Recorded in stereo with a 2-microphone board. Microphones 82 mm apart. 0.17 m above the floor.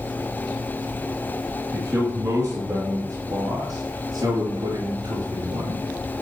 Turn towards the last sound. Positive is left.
turn(degrees=-50)  # may be behind; listen again after turning